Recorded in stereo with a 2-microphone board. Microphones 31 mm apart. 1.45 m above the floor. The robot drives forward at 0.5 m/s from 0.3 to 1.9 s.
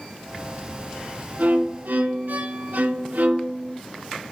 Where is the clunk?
I don't hear a clunk.